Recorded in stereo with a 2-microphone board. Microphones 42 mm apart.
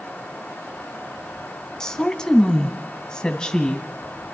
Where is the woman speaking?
15° left (ahead or behind), 1.5 m.